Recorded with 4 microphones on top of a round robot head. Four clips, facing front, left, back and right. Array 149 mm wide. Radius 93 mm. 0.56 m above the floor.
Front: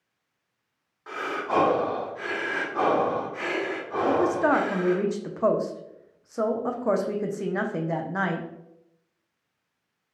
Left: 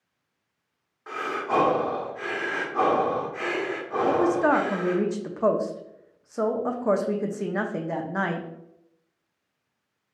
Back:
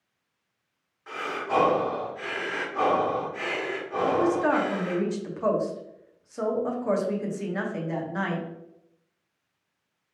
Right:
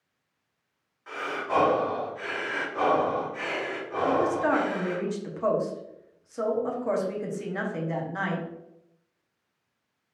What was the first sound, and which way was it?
Breathing, 55° left.